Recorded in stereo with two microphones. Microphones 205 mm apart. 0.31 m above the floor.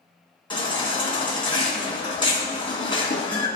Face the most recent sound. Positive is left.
turn(degrees=25)  # may be behind; listen again after turning